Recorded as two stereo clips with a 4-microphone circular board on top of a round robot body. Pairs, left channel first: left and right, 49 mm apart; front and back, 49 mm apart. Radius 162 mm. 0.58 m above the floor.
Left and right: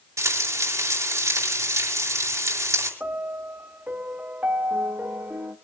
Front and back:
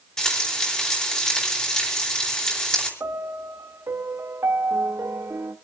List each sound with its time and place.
0.2 s frying: 75° right, 5.5 m
3.0 s a piano: 150° right, 1.1 m